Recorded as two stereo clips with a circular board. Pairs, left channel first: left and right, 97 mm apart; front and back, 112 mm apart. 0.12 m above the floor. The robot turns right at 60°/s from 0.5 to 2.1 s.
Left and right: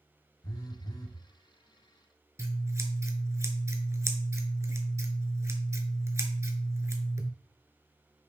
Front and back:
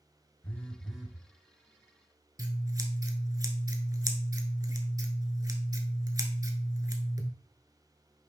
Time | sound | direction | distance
0.4 | a phone buzzing | 70° left | 0.8 m
2.4 | scissors | 135° right | 0.7 m